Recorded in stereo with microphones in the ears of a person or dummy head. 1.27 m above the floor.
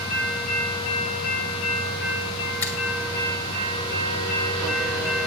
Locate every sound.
2.6 s a finger snap: 15° left (ahead or behind), 1.3 m